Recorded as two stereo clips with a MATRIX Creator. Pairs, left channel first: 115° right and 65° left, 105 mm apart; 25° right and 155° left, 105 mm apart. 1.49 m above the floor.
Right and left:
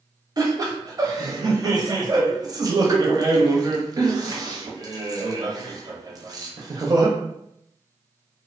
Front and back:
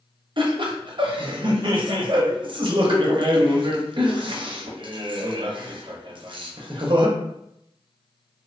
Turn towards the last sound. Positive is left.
turn(degrees=120)